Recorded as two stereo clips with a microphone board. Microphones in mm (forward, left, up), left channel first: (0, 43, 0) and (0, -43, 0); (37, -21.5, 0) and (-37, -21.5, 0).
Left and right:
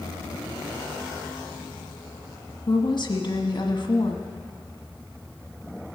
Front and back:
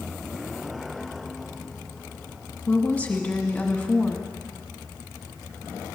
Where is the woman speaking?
70° left, 1.4 m.